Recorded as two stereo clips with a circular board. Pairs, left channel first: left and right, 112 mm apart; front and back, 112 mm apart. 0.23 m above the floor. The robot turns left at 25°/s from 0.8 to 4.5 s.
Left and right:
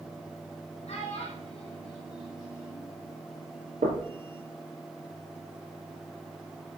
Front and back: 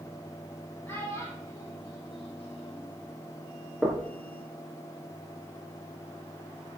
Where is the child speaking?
65° left, 5 m; by 2.9 s 15° left, 5 m.